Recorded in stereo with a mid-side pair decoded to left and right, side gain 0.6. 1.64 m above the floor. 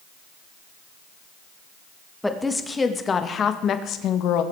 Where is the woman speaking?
10° left, 2.5 m; by 4.4 s 70° left, 1.9 m.